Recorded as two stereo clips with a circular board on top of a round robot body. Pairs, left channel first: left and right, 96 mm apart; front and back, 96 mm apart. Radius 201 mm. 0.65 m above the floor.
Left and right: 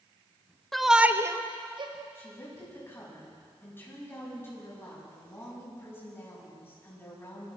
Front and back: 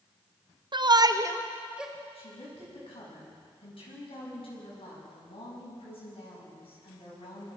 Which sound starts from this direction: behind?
A shout, at 0.7 s.